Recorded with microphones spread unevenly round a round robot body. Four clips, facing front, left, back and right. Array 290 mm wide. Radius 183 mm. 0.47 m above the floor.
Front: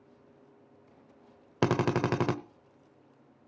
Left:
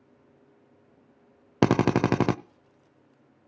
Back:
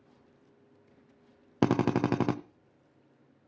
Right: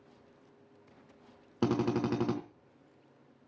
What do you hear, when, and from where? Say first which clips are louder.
1.6 s a drill: left 8 dB, back 1 dB; 65° left, 0.8 m